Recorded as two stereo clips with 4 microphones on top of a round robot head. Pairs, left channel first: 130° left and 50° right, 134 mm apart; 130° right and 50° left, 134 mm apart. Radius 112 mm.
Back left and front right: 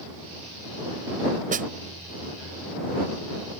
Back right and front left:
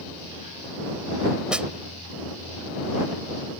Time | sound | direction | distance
1.5 | a snare drum | 35° right | ?